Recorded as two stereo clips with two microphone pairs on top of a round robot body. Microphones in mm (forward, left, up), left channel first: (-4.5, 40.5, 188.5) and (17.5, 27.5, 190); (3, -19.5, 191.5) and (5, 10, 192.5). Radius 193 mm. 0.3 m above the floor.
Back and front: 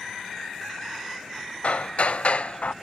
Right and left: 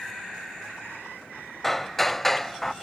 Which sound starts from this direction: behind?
Hammering, at 1.6 s.